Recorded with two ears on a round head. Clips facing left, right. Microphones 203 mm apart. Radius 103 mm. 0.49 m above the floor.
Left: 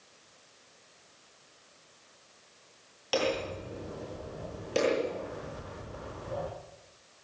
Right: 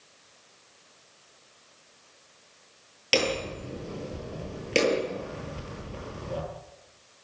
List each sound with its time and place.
3.1 s hammering: 30° right (ahead or behind), 10 m